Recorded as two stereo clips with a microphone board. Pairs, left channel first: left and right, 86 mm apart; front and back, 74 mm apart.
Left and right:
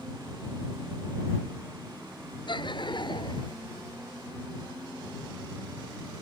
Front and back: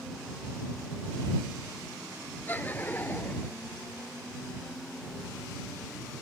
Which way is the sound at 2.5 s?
65° left.